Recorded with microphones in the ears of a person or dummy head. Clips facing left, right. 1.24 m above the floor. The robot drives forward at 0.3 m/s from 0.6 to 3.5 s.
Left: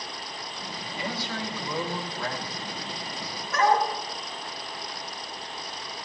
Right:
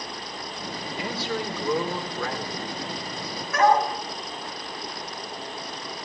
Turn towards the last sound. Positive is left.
turn(degrees=-55)  # may be behind; listen again after turning